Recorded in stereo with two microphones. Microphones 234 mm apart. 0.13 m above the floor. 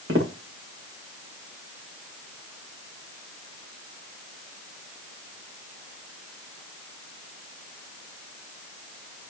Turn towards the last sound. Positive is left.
turn(degrees=-65)  # may be behind; listen again after turning